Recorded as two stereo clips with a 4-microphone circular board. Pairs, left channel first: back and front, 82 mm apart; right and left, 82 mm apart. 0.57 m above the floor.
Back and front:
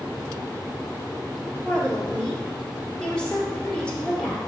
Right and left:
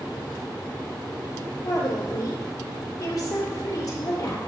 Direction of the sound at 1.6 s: 105° right.